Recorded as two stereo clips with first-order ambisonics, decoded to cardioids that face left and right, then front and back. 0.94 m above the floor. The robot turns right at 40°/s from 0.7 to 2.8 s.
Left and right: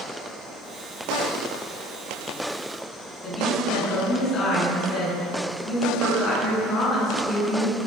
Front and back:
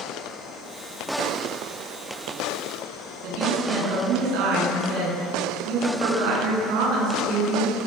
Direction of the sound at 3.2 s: 155° left.